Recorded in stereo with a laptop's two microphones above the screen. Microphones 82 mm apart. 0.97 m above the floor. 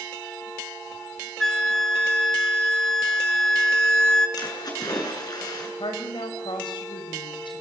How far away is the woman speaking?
About 5.5 m.